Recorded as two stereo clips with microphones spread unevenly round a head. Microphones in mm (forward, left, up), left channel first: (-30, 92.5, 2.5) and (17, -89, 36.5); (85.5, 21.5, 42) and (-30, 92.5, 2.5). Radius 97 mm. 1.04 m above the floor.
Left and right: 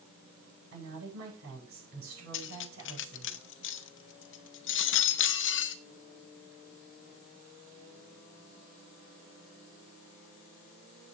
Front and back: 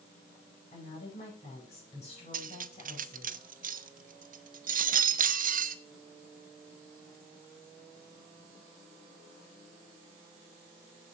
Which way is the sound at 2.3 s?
130° left.